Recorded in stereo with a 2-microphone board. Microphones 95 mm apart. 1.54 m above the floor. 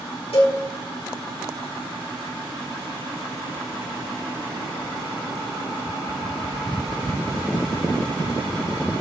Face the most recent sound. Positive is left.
turn(degrees=75)  # may be behind; listen again after turning